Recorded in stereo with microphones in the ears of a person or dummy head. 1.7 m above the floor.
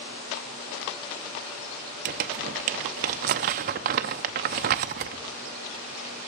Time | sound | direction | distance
2.0 | crumpling | 45° right (ahead or behind) | 0.6 m